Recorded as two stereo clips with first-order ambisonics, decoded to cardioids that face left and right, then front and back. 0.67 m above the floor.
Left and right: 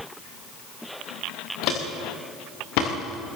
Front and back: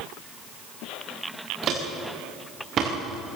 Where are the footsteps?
125° left, 5 m; by 3.4 s 115° left, 5.5 m.